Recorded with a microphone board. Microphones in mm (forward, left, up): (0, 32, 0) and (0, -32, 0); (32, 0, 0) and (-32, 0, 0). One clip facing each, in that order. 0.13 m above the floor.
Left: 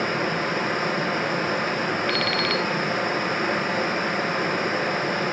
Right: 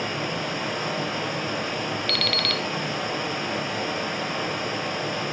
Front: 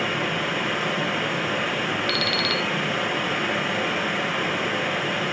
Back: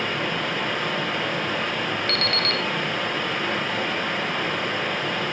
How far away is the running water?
About 1.7 m.